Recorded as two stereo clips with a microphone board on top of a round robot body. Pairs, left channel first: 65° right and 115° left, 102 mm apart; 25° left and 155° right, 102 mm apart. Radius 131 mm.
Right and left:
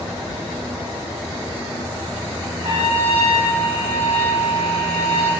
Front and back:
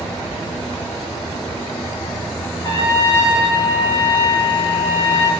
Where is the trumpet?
75° left, 6 m.